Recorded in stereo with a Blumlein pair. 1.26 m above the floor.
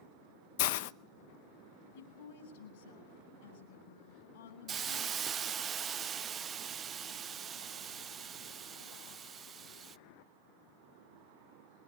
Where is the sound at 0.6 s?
50° left, 0.7 m.